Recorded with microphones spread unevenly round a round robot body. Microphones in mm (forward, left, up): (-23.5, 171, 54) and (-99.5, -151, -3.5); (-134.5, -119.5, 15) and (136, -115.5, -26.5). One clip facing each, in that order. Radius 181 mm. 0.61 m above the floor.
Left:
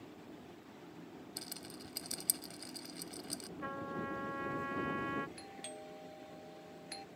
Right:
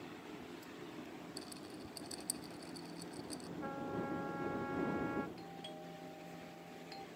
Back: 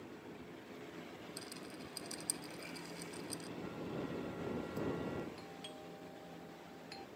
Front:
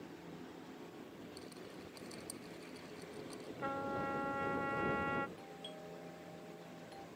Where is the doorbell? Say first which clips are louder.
Even, even; 115° left.